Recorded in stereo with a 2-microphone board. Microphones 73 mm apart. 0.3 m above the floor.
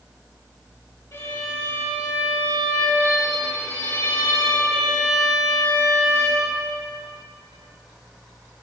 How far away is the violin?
About 3 m.